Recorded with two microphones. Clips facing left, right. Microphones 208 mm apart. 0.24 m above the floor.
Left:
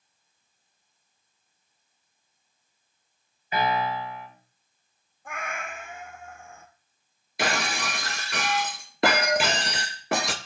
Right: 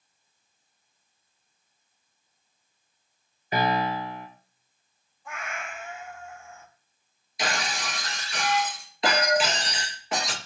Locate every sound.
3.5 s a piano: 45° right (ahead or behind), 2 m
5.2 s a cat meowing: 65° left (ahead or behind), 1.1 m
7.4 s breaking glass: 85° left, 1.0 m